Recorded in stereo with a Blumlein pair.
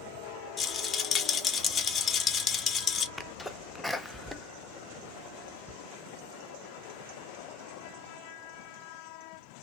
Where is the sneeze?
Straight ahead, 0.6 m.